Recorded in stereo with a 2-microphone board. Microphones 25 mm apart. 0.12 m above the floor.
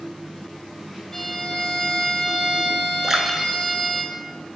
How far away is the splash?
About 0.7 m.